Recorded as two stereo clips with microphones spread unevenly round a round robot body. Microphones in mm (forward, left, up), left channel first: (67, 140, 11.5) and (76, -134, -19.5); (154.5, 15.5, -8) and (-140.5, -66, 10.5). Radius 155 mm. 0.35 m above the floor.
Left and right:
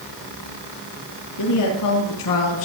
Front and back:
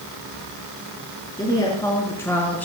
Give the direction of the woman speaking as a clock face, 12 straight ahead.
9 o'clock.